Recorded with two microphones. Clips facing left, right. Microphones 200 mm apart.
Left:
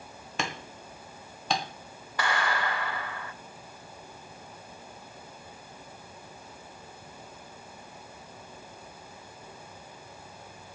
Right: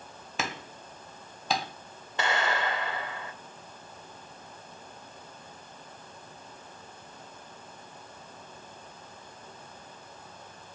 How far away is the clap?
About 2.5 m.